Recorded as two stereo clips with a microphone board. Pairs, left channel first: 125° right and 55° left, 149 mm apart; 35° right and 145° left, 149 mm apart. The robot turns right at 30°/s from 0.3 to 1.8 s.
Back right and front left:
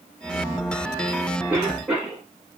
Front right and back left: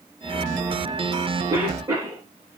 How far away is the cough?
About 1.7 m.